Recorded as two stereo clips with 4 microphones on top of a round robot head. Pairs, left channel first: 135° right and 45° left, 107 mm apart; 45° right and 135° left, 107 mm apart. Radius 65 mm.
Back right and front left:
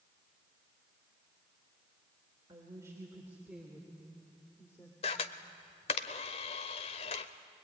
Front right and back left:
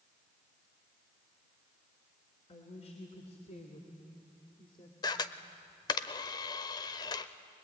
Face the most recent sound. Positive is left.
turn(degrees=-95)